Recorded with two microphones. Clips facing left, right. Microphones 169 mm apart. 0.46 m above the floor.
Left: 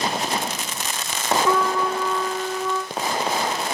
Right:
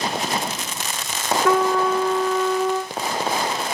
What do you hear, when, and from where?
1.4 s a trumpet: 80° right, 5.5 m